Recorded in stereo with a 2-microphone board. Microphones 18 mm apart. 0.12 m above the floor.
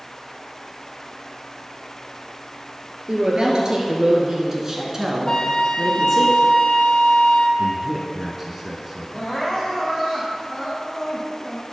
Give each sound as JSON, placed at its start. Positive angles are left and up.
{"t": 3.1, "sound": "a woman speaking", "side_deg": -45, "distance_m": 2.0}
{"t": 5.3, "sound": "a flute", "side_deg": 50, "distance_m": 0.7}
{"t": 7.6, "sound": "a man speaking", "side_deg": -10, "distance_m": 1.1}
{"t": 9.1, "sound": "crying", "side_deg": 20, "distance_m": 2.5}